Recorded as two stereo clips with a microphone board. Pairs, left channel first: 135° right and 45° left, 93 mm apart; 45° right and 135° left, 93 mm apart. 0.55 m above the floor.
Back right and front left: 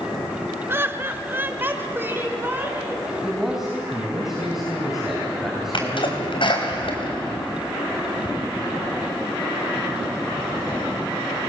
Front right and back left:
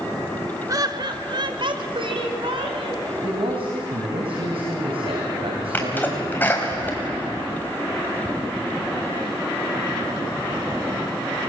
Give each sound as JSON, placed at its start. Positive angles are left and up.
{"t": 0.7, "sound": "laughter", "azimuth_deg": 100, "distance_m": 1.1}
{"t": 3.2, "sound": "a man speaking", "azimuth_deg": 130, "distance_m": 3.0}
{"t": 5.7, "sound": "a sneeze", "azimuth_deg": -115, "distance_m": 4.0}